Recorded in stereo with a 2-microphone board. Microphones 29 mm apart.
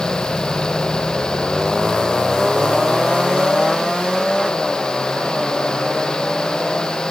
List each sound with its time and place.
Only background noise.